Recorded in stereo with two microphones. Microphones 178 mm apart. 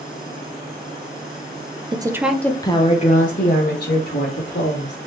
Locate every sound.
1.9 s a woman speaking: 25° right (ahead or behind), 0.5 m; by 5.0 s 70° left (ahead or behind), 1.5 m